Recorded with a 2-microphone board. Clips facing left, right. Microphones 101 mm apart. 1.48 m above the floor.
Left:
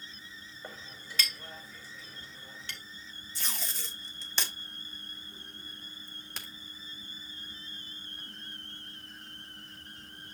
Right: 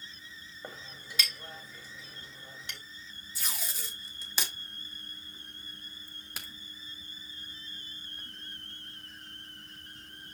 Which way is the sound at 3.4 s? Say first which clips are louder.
Even; 5° right (ahead or behind).